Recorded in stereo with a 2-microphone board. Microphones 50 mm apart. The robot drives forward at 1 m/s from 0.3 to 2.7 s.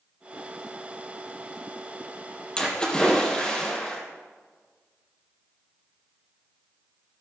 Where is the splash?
20° left (ahead or behind), 2.5 m.